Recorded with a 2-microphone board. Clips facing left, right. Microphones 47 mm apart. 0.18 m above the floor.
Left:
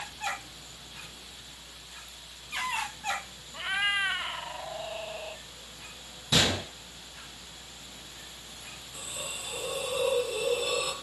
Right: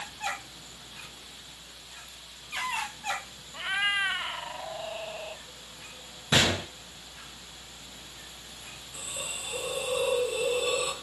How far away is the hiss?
About 3 m.